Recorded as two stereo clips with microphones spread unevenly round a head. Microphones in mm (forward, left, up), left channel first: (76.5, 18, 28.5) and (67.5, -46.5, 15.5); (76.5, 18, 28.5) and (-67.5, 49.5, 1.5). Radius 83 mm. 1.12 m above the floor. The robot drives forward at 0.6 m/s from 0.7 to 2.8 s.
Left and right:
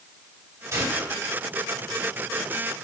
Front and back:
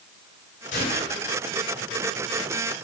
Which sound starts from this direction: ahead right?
A gunshot, at 0.7 s.